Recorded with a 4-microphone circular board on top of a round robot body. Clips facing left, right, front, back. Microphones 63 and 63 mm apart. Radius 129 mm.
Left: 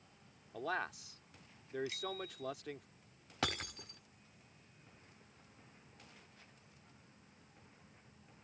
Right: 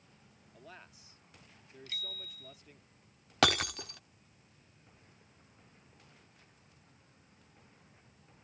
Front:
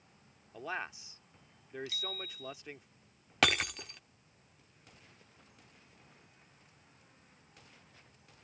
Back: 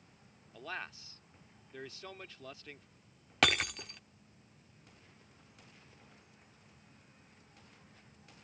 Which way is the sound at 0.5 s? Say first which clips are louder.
Left 15 dB, front 4 dB; 75° left.